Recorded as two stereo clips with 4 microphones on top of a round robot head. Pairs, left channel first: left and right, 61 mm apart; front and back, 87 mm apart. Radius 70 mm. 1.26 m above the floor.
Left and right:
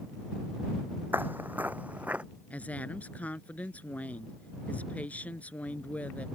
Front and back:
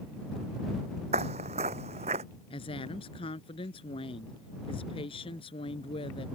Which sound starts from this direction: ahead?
A woman speaking, at 2.5 s.